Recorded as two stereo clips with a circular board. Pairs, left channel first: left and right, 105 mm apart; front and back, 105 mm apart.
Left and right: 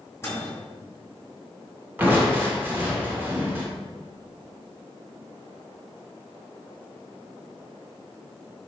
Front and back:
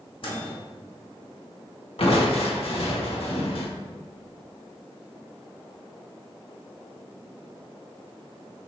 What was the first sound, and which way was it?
A microwave, 25° left.